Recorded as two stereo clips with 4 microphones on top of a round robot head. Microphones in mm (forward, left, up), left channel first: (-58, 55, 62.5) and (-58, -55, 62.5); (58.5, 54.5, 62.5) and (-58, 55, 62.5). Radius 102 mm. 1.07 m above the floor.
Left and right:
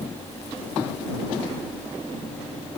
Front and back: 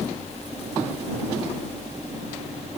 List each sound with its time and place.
Only background noise.